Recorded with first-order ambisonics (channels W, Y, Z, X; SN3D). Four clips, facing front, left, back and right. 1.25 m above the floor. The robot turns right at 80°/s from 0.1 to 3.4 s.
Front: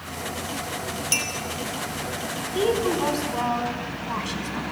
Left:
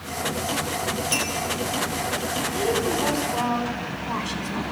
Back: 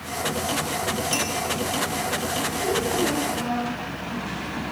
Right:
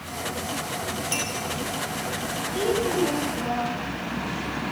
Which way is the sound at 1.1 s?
5° left.